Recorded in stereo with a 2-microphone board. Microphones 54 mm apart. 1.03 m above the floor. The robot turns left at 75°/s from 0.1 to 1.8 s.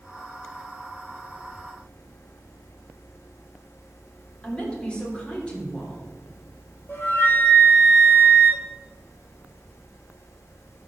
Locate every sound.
4.4 s a woman speaking: 20° left (ahead or behind), 3 m
6.9 s a flute: 40° left (ahead or behind), 2.5 m